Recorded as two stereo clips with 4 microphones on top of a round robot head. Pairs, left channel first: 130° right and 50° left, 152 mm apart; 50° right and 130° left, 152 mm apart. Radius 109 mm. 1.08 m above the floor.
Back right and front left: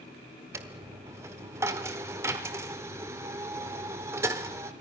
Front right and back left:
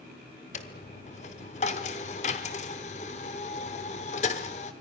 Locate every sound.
0.5 s a dropped coin: 20° right, 0.8 m